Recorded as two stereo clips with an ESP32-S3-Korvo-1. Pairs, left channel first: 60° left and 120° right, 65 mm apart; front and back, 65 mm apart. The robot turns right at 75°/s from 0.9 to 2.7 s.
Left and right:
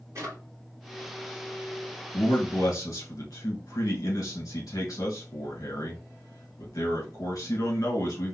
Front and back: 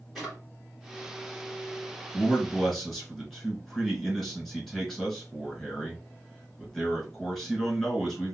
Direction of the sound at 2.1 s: 40° left.